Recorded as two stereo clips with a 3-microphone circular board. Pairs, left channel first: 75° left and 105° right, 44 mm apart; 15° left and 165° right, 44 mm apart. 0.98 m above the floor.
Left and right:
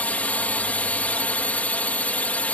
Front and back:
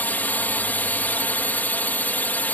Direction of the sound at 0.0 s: 40° left.